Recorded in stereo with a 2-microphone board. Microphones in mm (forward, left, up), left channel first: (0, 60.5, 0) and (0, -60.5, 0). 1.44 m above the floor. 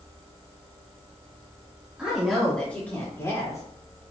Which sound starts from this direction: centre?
A woman speaking, at 2.0 s.